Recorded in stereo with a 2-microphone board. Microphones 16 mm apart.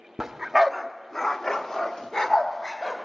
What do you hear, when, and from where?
0.2 s a dog barking: 25° right (ahead or behind), 0.6 m; by 3.0 s 50° left (ahead or behind), 1.6 m